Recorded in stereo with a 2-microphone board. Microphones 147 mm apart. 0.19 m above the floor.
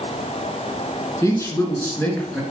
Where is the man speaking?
20° left (ahead or behind), 3 m; by 2.4 s 5° left (ahead or behind), 3 m.